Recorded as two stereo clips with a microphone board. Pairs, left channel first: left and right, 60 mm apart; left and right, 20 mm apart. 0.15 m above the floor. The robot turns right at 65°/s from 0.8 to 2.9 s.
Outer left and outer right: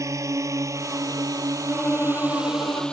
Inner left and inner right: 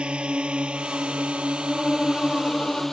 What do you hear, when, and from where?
0.0 s a drone: 55° right (ahead or behind); by 2.9 s 15° left (ahead or behind)
1.7 s a violin: 10° left; by 2.8 s 85° left